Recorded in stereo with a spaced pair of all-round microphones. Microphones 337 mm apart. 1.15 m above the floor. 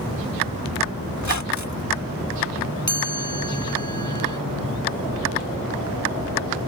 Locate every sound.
1.2 s a squeak: 55° left (ahead or behind)
2.9 s a chime: 60° left (ahead or behind)